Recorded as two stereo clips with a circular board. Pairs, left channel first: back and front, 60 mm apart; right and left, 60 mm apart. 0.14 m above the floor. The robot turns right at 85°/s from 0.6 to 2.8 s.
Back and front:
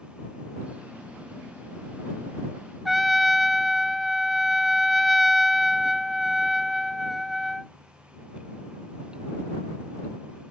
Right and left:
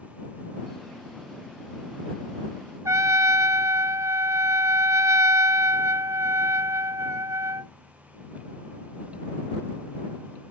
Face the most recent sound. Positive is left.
turn(degrees=90)